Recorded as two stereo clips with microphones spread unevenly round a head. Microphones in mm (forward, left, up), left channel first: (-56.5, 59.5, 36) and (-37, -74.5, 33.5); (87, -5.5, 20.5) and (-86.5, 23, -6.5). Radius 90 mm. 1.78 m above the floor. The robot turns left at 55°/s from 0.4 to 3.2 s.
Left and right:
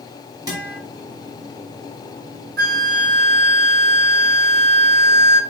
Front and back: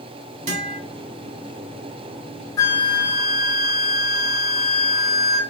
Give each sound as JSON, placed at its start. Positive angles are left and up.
{"t": 0.5, "sound": "a guitar", "azimuth_deg": -135, "distance_m": 1.8}
{"t": 2.6, "sound": "a flute", "azimuth_deg": -75, "distance_m": 0.6}